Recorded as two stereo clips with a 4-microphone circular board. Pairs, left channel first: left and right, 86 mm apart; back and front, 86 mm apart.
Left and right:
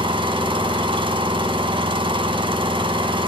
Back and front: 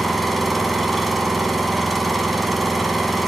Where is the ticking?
I don't hear ticking.